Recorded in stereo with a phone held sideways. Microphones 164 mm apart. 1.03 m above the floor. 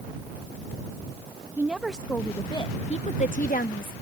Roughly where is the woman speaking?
Centre.